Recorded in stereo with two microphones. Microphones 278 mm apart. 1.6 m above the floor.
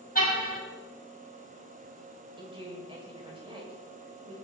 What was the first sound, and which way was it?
A car horn, 30° left (ahead or behind).